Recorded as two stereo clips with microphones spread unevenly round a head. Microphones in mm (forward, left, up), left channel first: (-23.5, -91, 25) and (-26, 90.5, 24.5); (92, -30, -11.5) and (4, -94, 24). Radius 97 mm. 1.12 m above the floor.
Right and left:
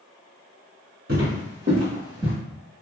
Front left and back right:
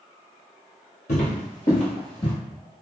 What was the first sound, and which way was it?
Footsteps, 60° left.